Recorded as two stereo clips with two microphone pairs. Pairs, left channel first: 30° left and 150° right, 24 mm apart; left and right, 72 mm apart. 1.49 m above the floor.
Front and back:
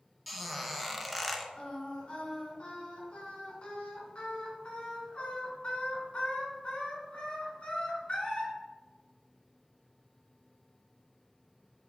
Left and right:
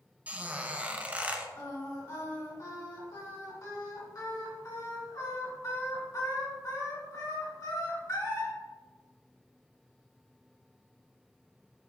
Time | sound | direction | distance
0.3 | a squeak | 70° right | 0.7 m
1.6 | singing | 65° left | 2.5 m